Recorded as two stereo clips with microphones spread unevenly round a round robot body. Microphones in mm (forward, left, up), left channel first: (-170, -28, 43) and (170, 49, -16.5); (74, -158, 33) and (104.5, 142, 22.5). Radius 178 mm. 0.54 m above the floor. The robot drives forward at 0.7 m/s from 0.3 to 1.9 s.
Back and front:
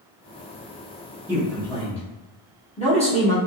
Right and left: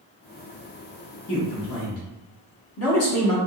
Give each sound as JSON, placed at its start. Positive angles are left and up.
{"t": 1.3, "sound": "a man speaking", "azimuth_deg": -55, "distance_m": 1.1}